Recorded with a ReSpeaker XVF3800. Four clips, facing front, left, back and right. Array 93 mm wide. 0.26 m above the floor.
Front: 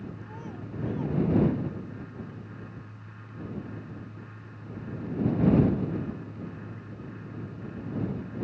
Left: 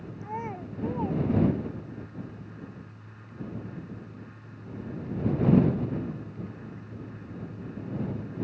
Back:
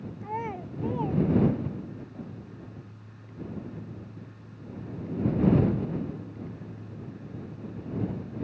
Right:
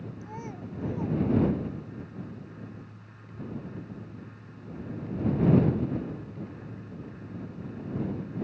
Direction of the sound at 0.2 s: 150° left.